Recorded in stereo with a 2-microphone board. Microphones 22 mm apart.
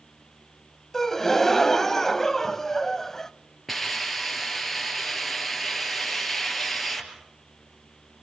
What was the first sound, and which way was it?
A gasp, 15° left (ahead or behind).